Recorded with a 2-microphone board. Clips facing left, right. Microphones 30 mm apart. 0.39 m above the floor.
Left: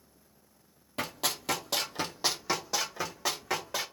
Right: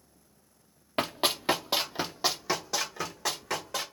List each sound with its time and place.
1.0 s running footsteps: 50° right (ahead or behind), 0.5 m; by 3.8 s 10° left (ahead or behind), 1.4 m